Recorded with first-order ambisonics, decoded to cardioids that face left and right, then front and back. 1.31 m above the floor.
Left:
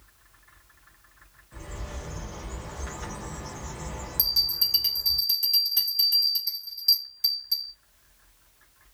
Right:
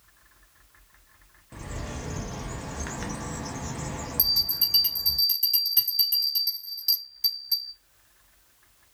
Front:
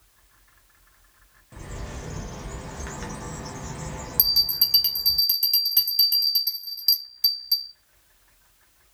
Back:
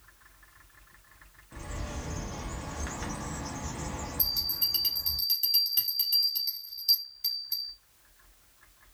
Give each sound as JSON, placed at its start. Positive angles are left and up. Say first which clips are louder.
{"t": 1.5, "sound": "a bird", "louder": "right 3 dB, front 1 dB", "azimuth_deg": -85, "distance_m": 0.5}
{"t": 4.2, "sound": "a bell", "louder": "even, front 10 dB", "azimuth_deg": 0, "distance_m": 1.1}